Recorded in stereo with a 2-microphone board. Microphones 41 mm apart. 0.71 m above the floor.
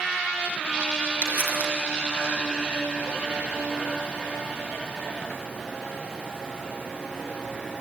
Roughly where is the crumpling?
Right.